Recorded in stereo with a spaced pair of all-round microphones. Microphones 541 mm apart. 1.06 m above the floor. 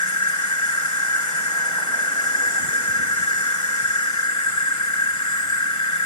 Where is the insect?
70° left (ahead or behind).